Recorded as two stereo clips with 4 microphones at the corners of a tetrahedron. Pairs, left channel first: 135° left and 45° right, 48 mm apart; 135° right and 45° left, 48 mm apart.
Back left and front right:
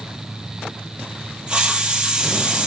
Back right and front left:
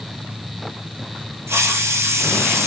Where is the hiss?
25° left, 1.0 m.